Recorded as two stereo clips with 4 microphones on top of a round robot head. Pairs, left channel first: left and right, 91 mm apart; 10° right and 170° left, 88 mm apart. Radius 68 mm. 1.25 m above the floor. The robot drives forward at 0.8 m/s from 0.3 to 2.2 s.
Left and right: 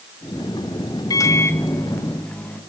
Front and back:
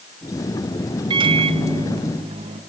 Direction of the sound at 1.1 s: 140° left.